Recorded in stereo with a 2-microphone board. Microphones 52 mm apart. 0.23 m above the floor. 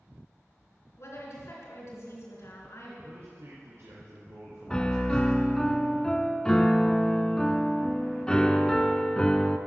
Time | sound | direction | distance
1.0 | a woman speaking | 60° left (ahead or behind) | 3 m
3.0 | a man speaking | 60° right (ahead or behind) | 2.5 m
4.7 | a piano | 15° left (ahead or behind) | 0.6 m